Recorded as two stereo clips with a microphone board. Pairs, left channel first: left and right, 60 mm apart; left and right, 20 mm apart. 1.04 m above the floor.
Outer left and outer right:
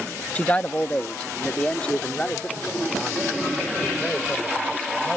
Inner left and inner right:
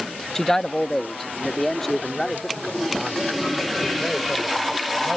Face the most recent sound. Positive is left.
turn(degrees=15)  # may be behind; listen again after turning